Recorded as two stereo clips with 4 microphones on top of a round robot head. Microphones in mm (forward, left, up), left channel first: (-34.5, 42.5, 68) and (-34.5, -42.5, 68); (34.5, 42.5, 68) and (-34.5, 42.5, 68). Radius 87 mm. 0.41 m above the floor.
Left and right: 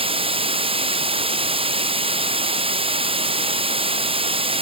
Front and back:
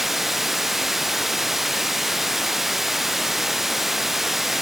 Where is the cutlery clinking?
I don't hear cutlery clinking.